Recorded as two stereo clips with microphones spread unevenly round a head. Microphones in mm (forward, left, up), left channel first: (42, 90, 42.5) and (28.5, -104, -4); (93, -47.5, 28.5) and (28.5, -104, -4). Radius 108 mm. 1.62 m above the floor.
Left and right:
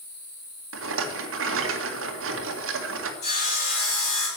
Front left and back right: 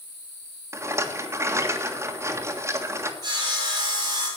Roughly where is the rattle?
Right.